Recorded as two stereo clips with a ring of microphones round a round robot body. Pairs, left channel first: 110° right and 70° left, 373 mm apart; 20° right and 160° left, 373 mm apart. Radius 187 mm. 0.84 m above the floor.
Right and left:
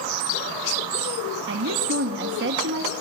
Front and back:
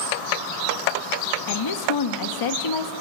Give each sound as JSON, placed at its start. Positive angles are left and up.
{"t": 1.5, "sound": "a woman speaking", "azimuth_deg": 10, "distance_m": 0.9}